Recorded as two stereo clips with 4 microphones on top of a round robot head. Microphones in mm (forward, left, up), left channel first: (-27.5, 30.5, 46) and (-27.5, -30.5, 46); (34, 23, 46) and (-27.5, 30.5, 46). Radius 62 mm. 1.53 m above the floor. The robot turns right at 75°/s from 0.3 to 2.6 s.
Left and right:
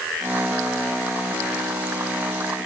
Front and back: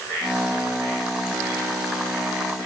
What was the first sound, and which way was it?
Only background noise.